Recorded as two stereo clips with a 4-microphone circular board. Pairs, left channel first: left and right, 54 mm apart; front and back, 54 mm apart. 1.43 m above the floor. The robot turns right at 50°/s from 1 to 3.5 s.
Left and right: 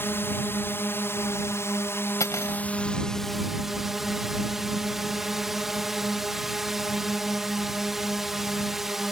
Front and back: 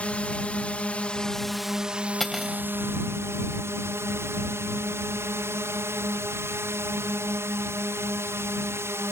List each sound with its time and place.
0.0 s a drone: 60° left; by 9.1 s 175° right
2.2 s cutlery clinking: 85° left; by 2.6 s 105° left